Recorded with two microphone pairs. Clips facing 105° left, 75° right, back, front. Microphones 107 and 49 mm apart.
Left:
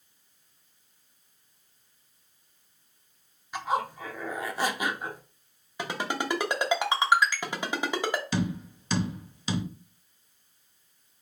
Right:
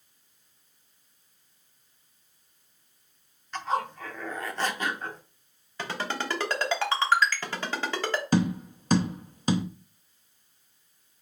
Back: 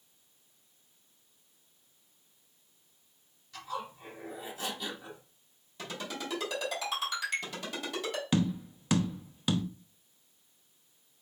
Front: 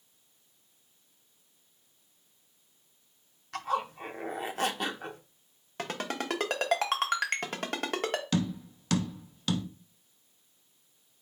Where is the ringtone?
30° left, 1.0 m.